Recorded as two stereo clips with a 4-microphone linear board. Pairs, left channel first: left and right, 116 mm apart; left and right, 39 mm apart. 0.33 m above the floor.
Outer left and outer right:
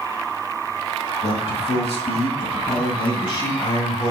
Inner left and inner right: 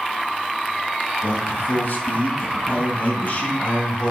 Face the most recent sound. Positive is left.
turn(degrees=35)  # may be behind; listen again after turning